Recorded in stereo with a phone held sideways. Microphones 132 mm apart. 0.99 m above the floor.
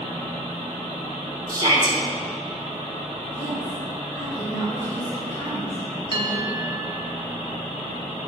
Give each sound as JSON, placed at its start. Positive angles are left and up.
{"t": 1.5, "sound": "a shout", "side_deg": -30, "distance_m": 4.0}
{"t": 3.3, "sound": "a woman speaking", "side_deg": 15, "distance_m": 4.0}
{"t": 6.1, "sound": "a bell", "side_deg": -40, "distance_m": 1.6}